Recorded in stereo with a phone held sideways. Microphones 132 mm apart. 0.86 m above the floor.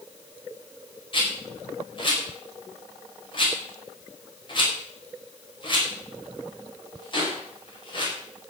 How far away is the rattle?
About 5 m.